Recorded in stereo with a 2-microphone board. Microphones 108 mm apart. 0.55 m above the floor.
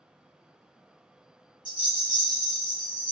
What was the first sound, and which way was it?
A rattle, 45° right (ahead or behind).